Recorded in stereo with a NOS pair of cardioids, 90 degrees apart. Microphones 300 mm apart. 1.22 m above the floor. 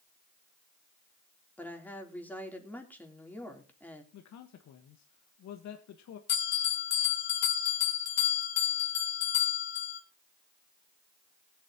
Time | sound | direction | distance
1.6 | a woman speaking | 5° left | 3.5 m
4.1 | a man speaking | 65° left | 1.4 m
6.3 | a bell | 60° left | 3.5 m